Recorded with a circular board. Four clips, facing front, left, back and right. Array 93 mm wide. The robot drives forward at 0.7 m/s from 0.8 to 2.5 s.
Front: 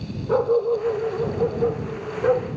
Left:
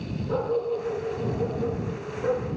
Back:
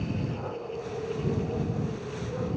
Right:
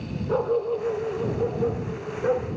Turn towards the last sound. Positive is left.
turn(degrees=0)